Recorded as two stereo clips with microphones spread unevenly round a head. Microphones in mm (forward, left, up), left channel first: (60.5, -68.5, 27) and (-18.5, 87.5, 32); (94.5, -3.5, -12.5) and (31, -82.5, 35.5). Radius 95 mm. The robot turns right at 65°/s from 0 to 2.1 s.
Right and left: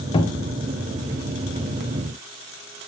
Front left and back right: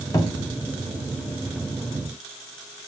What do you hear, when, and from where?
0.1 s a cupboard door: straight ahead, 1.8 m; by 0.6 s 30° left, 1.8 m